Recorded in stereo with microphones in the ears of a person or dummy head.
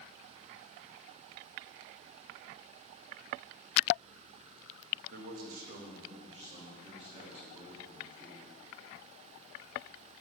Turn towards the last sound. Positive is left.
turn(degrees=-25)  # may be behind; listen again after turning